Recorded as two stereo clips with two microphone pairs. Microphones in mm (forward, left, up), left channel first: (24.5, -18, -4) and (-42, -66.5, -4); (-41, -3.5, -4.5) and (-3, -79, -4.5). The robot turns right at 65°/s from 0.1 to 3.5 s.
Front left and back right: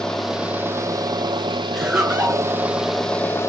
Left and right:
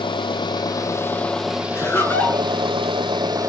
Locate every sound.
0.0 s an engine running: 120° left, 1.0 m; by 3.5 s 20° right, 1.0 m
1.7 s laughter: 135° left, 1.4 m; by 2.5 s straight behind, 1.4 m